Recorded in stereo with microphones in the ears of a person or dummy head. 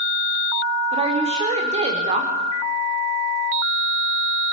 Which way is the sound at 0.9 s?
35° right (ahead or behind).